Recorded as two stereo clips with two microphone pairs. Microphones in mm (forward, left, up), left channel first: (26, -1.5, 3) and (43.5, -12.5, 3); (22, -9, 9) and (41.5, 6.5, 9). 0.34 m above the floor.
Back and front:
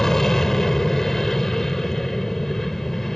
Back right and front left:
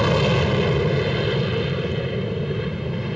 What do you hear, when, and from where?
0.0 s an aircraft: 145° left; by 3.1 s 105° left